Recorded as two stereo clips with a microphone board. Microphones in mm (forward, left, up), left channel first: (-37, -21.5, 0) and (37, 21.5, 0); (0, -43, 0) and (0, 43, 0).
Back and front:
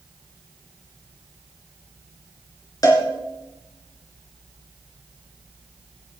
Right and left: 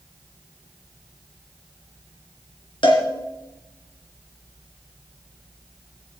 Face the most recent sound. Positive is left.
turn(degrees=-105)